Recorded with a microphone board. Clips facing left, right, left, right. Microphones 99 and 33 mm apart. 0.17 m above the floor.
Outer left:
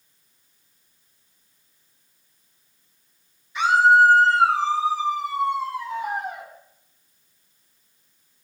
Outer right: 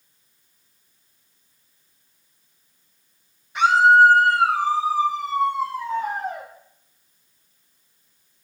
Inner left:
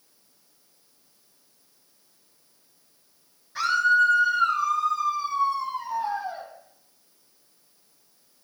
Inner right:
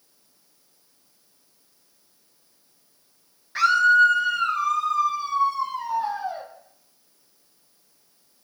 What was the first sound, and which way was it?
A scream, 60° right (ahead or behind).